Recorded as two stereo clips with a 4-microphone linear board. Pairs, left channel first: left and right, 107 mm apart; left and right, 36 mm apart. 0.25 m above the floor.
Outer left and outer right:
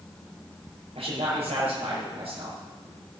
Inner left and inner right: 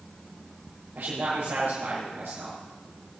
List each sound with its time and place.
0.9 s a man speaking: 75° right (ahead or behind), 6.5 m